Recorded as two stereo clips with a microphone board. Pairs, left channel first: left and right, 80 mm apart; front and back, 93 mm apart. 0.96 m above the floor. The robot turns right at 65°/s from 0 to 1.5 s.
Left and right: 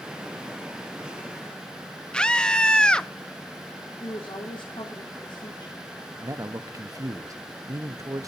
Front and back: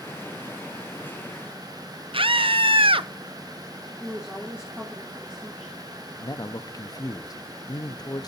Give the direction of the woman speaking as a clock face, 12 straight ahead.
9 o'clock.